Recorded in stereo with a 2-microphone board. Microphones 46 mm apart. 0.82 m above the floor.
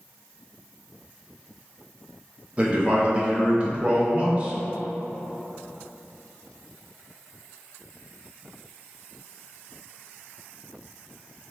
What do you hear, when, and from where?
2.6 s a man speaking: 25° right (ahead or behind), 0.6 m